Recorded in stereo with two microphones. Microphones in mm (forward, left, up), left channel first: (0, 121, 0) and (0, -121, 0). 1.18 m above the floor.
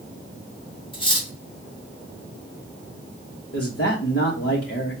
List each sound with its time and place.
0.9 s cutlery clinking: 20° left (ahead or behind), 1.2 m
3.5 s a man speaking: 55° left (ahead or behind), 1.3 m